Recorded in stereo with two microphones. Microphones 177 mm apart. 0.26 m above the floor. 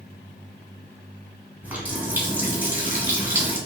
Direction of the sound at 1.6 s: 10° right (ahead or behind).